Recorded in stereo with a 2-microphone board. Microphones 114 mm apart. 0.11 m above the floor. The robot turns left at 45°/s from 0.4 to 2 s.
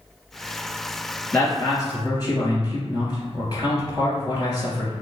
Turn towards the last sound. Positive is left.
turn(degrees=125)